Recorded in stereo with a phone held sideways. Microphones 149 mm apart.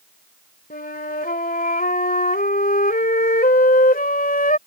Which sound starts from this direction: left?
A flute, at 0.7 s.